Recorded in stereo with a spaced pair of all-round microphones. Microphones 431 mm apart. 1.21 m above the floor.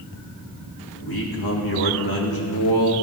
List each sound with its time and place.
1.0 s a man speaking: 65° left (ahead or behind), 2.5 m